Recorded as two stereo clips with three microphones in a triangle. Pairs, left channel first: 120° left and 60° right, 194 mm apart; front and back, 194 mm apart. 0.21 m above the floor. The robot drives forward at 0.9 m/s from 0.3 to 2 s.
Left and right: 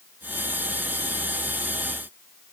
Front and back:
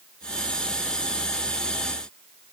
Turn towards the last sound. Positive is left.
No sound to turn to.